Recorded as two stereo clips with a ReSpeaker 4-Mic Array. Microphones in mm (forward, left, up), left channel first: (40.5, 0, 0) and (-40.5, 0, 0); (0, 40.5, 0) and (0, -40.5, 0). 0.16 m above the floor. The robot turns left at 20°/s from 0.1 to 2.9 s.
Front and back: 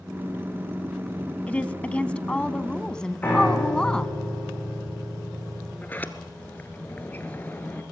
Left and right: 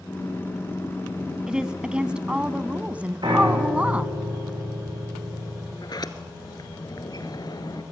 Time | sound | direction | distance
1.5 | a woman speaking | 30° right | 1.0 m
3.2 | a piano | 65° right | 8.5 m
5.8 | a sliding door | 65° left | 1.3 m